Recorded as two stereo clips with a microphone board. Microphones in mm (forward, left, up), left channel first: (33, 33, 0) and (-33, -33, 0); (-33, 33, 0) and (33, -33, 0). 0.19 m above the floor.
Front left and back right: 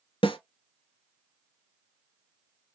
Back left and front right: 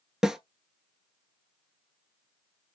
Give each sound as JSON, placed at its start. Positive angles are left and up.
{"t": 0.2, "sound": "a snare drum", "azimuth_deg": 40, "distance_m": 0.6}